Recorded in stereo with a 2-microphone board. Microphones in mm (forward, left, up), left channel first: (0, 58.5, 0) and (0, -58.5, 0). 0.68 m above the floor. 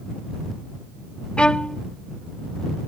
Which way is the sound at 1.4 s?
10° left (ahead or behind).